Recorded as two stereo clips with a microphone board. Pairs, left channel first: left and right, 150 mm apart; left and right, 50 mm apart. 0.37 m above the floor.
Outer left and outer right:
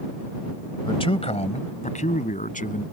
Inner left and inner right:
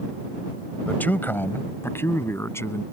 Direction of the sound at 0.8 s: 35° left (ahead or behind).